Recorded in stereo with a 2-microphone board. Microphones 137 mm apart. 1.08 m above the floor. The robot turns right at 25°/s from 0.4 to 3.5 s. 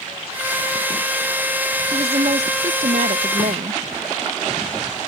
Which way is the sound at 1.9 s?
135° right.